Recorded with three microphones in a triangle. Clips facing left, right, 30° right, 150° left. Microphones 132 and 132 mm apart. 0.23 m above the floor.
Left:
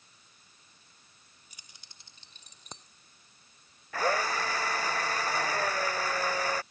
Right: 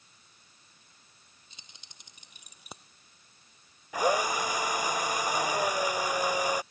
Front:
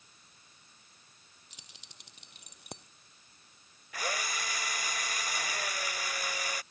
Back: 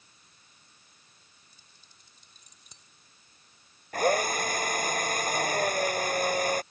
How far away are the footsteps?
No footsteps in this recording.